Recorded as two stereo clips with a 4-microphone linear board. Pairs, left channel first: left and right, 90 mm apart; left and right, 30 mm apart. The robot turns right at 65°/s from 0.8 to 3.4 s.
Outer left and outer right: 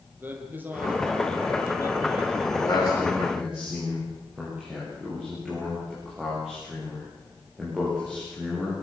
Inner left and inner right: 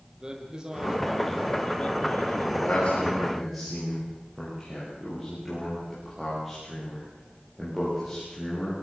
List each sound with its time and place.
0.2 s a man speaking: 25° right, 5 m; by 2.5 s 90° left, 5 m
2.6 s a man speaking: 40° left (ahead or behind), 10 m; by 8.7 s 10° right (ahead or behind), 10 m